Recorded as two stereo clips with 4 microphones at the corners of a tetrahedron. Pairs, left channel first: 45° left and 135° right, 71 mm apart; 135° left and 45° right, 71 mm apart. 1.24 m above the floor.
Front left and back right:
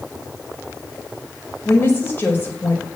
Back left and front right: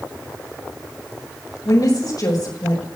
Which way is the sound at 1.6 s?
110° left.